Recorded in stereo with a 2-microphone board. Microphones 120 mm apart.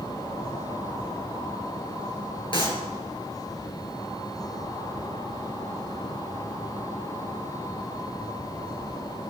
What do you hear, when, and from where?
2.5 s a clap: 45° left (ahead or behind), 4.5 m